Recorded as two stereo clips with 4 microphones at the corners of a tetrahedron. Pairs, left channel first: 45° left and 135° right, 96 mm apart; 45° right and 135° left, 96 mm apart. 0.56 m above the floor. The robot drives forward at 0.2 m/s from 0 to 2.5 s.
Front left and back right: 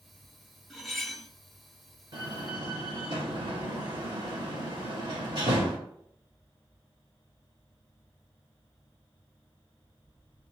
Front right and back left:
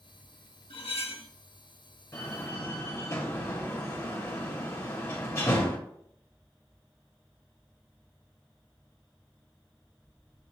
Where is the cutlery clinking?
40° right, 0.9 m; by 1.3 s 45° right, 0.8 m.